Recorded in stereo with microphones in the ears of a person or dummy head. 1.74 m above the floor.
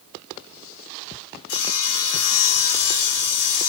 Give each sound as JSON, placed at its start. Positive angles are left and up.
{"t": 1.5, "sound": "sawing", "side_deg": 85, "distance_m": 5.0}